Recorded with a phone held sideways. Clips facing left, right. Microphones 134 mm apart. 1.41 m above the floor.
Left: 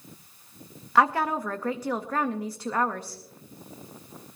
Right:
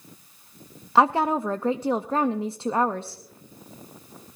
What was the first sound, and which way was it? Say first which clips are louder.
A woman speaking: right 3 dB; 25° right (ahead or behind).